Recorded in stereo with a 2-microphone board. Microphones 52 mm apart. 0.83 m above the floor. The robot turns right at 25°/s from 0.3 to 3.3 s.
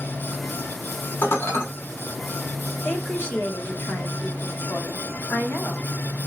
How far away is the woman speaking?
About 0.8 m.